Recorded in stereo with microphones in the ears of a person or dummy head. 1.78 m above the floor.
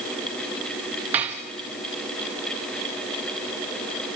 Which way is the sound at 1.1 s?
15° right (ahead or behind).